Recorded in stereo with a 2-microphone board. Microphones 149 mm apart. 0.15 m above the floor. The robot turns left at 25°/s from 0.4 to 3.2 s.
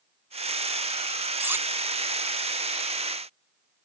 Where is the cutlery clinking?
10° right (ahead or behind), 0.7 m; by 1.7 s 15° right (ahead or behind), 0.7 m.